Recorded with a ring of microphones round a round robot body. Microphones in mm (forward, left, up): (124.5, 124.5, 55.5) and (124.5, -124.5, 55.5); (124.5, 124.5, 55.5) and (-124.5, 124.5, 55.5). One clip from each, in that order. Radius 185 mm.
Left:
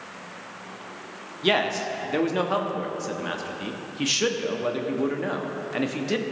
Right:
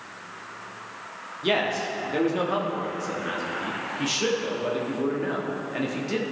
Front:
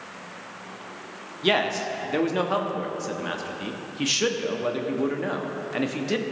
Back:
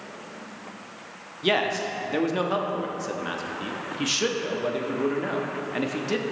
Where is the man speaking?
70° left, 1.0 m.